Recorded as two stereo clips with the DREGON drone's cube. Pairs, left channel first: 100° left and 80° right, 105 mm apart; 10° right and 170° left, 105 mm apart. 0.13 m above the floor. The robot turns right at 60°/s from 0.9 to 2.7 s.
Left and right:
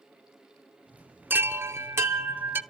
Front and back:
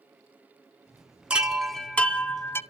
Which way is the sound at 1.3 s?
120° right.